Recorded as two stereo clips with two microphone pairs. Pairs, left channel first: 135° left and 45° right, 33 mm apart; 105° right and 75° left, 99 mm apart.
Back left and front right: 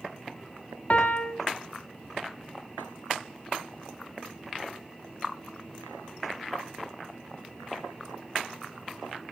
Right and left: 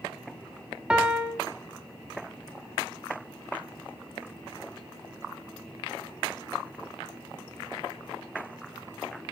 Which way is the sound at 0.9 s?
150° left.